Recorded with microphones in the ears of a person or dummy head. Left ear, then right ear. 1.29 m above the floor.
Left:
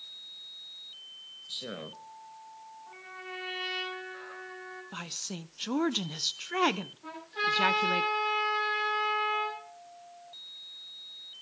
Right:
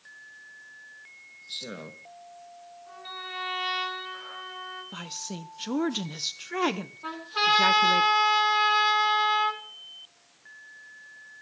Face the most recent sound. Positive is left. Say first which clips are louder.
# right 7 dB
turn(degrees=-50)  # may be behind; listen again after turning